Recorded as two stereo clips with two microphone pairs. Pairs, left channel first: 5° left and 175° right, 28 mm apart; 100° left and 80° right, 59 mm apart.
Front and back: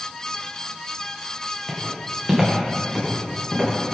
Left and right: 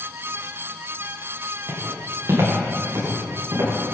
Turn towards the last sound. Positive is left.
turn(degrees=-100)